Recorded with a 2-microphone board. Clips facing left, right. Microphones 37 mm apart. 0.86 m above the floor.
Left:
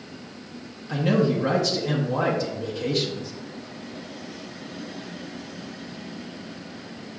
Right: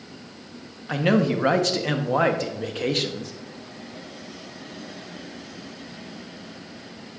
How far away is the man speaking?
About 0.9 m.